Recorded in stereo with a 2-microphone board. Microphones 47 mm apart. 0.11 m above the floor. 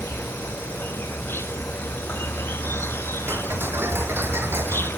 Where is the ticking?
55° right (ahead or behind).